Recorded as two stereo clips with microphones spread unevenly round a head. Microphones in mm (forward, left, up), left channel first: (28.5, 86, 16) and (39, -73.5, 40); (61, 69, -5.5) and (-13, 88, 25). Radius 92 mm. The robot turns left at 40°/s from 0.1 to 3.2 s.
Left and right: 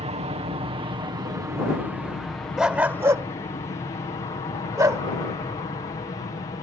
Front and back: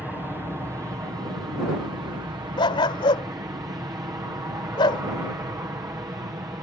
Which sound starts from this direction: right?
An aircraft, at 0.0 s.